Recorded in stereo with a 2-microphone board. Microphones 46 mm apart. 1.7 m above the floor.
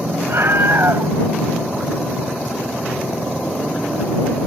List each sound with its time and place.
0.3 s a scream: 55° right (ahead or behind)